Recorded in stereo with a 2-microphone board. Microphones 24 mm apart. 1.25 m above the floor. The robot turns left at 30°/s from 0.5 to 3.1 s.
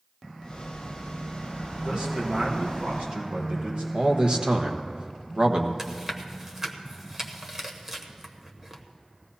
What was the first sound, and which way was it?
A man speaking, 40° right.